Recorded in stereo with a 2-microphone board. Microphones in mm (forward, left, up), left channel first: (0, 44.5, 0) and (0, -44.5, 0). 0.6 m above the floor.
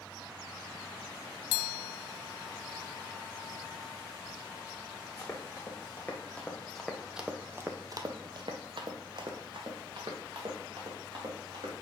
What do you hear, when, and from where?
5.2 s running footsteps: 30° left (ahead or behind), 2 m; by 11.8 s 55° right (ahead or behind), 3.5 m